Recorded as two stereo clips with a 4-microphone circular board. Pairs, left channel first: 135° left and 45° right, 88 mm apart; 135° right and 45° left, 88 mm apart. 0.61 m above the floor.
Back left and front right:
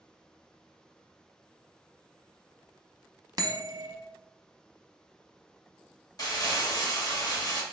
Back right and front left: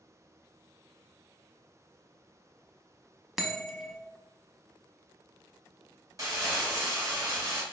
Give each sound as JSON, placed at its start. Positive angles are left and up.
{"t": 3.4, "sound": "a bell", "azimuth_deg": -40, "distance_m": 0.6}
{"t": 6.2, "sound": "crumpling", "azimuth_deg": 95, "distance_m": 1.0}